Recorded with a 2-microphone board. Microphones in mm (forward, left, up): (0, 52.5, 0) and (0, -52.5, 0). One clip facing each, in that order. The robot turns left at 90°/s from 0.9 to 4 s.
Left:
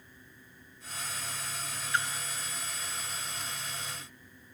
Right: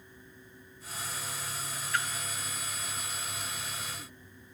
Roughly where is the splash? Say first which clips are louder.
Left 1 dB; left.